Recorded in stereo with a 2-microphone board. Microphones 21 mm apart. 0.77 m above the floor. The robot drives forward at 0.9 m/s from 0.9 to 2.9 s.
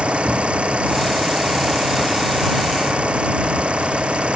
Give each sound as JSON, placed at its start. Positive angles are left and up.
{"t": 0.0, "sound": "an engine running", "side_deg": -65}